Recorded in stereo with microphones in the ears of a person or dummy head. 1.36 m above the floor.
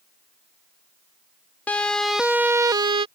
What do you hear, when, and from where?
1.7 s a siren: 10° left (ahead or behind); by 3.1 s 30° right (ahead or behind)